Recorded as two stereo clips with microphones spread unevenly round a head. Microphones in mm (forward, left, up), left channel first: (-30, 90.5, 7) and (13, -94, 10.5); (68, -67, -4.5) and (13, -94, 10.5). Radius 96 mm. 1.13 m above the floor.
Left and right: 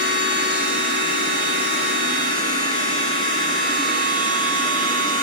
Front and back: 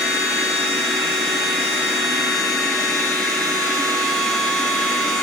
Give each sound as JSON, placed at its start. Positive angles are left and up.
{"t": 0.0, "sound": "a machine running", "azimuth_deg": 120, "distance_m": 0.8}